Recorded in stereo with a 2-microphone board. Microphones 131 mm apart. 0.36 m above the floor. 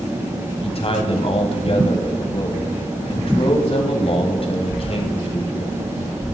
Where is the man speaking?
45° left (ahead or behind), 1.7 m.